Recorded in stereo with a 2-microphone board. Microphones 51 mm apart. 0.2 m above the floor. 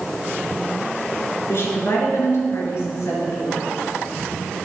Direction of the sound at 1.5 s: 60° left (ahead or behind).